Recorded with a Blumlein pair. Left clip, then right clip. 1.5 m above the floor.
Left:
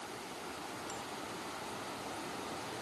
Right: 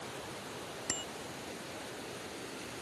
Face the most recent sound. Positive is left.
turn(degrees=-55)